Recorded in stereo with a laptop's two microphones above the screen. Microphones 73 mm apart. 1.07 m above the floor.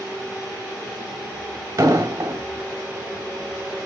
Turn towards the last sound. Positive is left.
turn(degrees=-40)  # may be behind; listen again after turning